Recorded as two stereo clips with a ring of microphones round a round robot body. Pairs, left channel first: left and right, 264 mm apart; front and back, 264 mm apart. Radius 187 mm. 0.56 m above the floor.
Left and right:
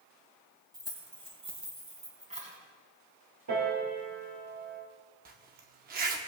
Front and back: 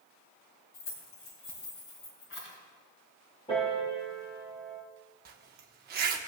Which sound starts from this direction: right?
A piano, at 3.5 s.